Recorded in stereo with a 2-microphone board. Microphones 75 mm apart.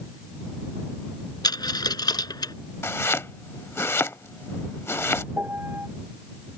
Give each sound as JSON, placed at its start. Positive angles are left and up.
{"t": 1.4, "sound": "a dropped coin", "side_deg": 70}
{"t": 2.8, "sound": "chopping", "side_deg": 35}
{"t": 5.3, "sound": "a piano", "side_deg": -25}